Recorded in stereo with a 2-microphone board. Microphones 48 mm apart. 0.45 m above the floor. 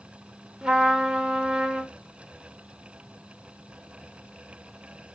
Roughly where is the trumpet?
Centre.